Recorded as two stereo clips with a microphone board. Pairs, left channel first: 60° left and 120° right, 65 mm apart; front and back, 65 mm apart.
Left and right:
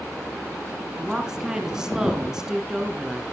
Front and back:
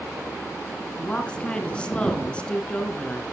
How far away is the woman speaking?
About 1.8 m.